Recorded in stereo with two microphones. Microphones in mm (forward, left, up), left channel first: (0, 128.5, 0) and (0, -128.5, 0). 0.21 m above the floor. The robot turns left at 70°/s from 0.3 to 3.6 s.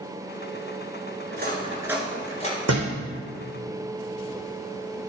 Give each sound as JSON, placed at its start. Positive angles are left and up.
{"t": 1.3, "sound": "cutlery clinking", "side_deg": -45, "distance_m": 1.7}
{"t": 2.7, "sound": "a thud", "side_deg": -70, "distance_m": 3.0}